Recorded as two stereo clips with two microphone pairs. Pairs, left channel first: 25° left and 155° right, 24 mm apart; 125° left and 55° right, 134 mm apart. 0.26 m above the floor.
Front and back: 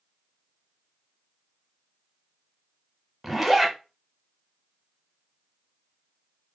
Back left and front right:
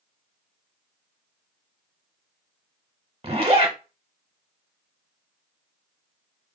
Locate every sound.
3.2 s a zipper: 70° right, 0.7 m